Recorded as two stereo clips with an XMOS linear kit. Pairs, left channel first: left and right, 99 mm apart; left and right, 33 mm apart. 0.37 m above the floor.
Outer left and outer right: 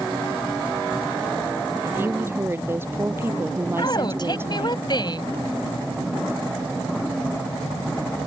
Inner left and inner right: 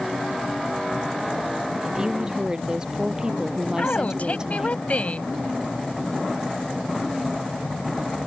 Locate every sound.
1.8 s a woman speaking: 25° right (ahead or behind)
3.8 s a woman speaking: 50° left (ahead or behind)